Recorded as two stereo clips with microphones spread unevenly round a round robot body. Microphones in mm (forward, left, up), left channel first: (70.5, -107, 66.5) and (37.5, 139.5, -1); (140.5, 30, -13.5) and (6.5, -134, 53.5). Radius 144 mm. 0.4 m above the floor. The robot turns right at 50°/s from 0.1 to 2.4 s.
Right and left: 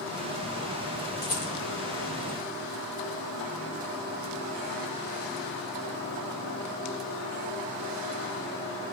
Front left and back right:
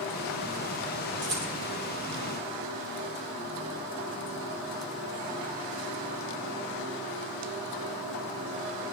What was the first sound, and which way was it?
A rattle, 125° right.